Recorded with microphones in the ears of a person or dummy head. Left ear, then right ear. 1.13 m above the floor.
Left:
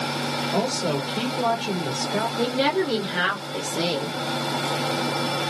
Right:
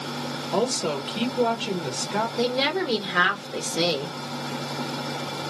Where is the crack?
I don't hear a crack.